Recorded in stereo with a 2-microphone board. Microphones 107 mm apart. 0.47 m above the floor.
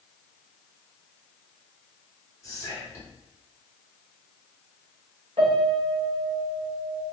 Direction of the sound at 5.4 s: 65° right (ahead or behind).